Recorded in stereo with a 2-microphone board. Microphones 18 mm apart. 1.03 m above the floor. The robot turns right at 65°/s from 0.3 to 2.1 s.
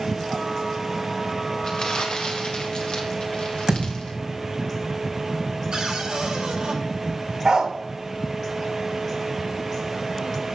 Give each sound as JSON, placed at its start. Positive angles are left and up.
{"t": 1.6, "sound": "crumpling", "side_deg": 45, "distance_m": 1.7}
{"t": 3.7, "sound": "a thud", "side_deg": -40, "distance_m": 5.0}
{"t": 5.7, "sound": "a cupboard door", "side_deg": -45, "distance_m": 5.0}
{"t": 7.5, "sound": "a dog barking", "side_deg": -50, "distance_m": 1.2}